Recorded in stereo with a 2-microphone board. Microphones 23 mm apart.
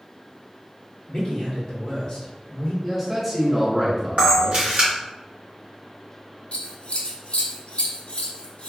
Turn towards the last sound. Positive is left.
turn(degrees=65)  # may be behind; listen again after turning